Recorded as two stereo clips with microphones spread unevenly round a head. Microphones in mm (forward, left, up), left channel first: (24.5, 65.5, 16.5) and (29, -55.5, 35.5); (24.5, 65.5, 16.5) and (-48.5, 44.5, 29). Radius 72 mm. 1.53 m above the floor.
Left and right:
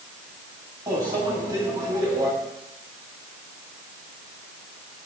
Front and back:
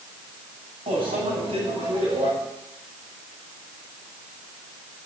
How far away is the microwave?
About 7.5 m.